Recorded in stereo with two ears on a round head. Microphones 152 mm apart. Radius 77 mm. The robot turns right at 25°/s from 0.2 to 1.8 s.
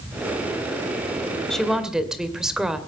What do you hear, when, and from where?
1.5 s a woman speaking: 5° left (ahead or behind), 2 m; by 2.8 s 5° right (ahead or behind), 2 m